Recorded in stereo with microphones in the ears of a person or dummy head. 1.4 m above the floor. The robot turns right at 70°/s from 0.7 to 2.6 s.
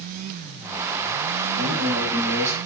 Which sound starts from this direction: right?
A man speaking, at 1.6 s.